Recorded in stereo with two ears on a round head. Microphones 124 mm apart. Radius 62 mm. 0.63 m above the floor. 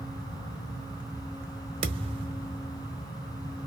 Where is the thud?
40° right (ahead or behind), 0.8 m.